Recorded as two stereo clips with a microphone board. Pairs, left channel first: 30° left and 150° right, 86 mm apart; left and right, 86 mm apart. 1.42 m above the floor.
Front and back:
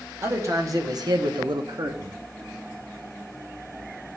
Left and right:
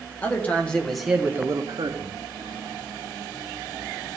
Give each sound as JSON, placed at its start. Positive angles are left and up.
{"t": 0.2, "sound": "a man speaking", "azimuth_deg": 160, "distance_m": 1.9}